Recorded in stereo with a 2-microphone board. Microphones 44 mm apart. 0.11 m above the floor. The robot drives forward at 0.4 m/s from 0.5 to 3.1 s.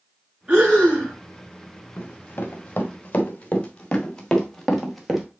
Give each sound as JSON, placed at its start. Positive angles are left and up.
{"t": 0.5, "sound": "breathing", "side_deg": -35, "distance_m": 5.0}
{"t": 2.0, "sound": "running footsteps", "side_deg": 55, "distance_m": 2.0}